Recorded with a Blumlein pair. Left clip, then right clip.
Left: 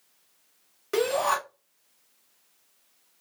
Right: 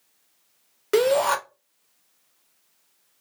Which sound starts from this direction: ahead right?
A shout, at 0.9 s.